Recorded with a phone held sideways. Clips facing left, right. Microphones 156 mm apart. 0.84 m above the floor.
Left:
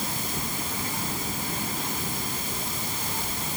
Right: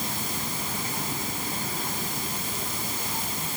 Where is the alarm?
I don't hear an alarm.